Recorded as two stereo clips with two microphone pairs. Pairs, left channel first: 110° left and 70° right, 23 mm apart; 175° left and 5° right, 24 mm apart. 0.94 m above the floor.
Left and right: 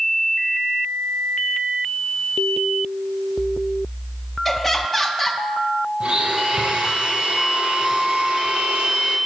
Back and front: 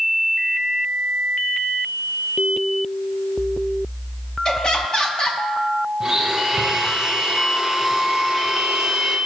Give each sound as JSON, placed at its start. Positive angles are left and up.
{"t": 4.5, "sound": "laughter", "azimuth_deg": 175, "distance_m": 0.9}
{"t": 6.0, "sound": "a blender", "azimuth_deg": -70, "distance_m": 1.4}